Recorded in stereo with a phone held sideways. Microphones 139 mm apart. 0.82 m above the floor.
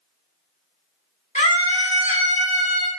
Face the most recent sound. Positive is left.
turn(degrees=70)  # may be behind; listen again after turning